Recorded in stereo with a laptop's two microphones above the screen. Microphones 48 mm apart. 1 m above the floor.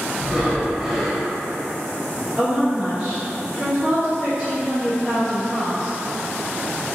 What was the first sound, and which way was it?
Breathing, 5° right (ahead or behind).